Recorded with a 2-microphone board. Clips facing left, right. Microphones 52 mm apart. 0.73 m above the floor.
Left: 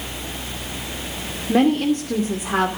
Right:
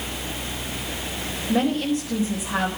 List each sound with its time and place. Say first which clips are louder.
1.5 s a woman speaking: left 5 dB; 55° left (ahead or behind), 2.5 m